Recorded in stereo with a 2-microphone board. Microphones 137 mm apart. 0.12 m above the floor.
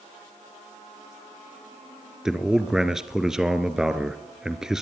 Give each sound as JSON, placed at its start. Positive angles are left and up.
{"t": 2.2, "sound": "a man speaking", "side_deg": -5, "distance_m": 1.5}